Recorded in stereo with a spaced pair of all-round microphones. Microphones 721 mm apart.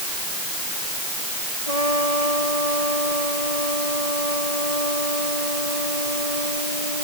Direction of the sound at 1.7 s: 55° left (ahead or behind).